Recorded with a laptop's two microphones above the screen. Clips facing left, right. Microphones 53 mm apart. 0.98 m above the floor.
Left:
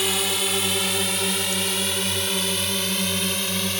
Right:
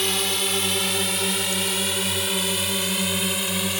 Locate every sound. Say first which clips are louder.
0.0 s a drone: even; 5° left (ahead or behind); by 3.8 s 10° right (ahead or behind)